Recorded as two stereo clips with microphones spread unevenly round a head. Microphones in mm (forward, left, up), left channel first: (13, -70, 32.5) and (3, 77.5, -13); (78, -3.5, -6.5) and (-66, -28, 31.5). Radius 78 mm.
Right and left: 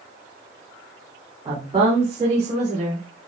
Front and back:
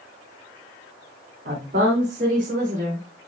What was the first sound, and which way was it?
A woman speaking, 160° left.